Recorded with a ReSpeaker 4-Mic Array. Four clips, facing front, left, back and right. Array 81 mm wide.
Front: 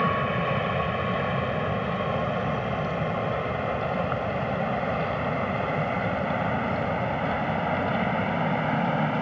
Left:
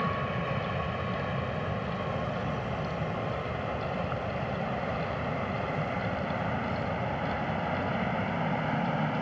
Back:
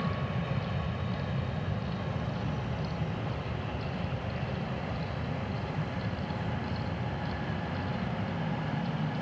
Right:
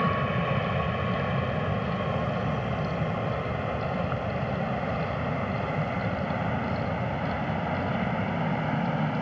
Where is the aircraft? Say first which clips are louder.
Right 4 dB, front 10 dB; 20° right; by 9.2 s straight ahead.